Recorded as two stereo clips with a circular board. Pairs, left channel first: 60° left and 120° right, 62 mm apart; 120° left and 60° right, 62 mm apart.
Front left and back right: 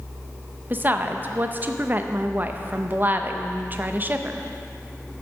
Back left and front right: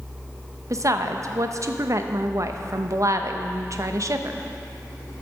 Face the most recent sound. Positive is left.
turn(degrees=-65)